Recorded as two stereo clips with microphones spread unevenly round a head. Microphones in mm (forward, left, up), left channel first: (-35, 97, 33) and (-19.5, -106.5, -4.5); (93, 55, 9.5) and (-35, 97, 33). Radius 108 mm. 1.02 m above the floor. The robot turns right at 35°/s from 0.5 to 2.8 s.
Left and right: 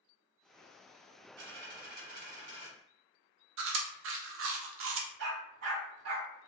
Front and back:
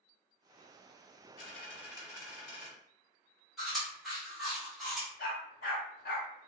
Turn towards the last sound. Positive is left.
turn(degrees=-60)